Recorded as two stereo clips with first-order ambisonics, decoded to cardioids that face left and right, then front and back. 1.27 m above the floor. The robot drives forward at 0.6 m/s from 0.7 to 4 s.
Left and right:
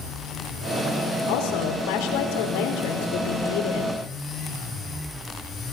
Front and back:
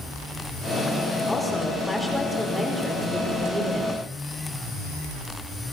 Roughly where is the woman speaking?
Left.